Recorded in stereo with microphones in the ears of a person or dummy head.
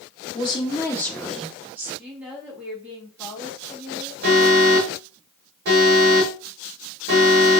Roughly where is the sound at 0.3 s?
Left.